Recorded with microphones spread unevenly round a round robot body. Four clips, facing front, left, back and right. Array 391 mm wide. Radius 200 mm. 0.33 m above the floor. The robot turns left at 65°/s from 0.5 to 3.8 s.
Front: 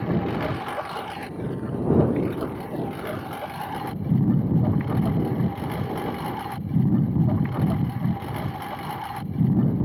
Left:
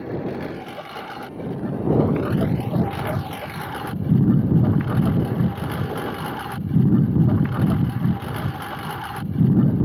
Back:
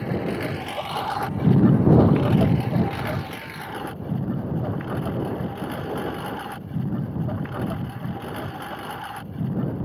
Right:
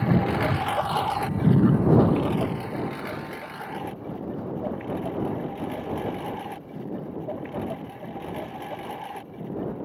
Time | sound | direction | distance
0.0 | a lawn mower | 75° right | ?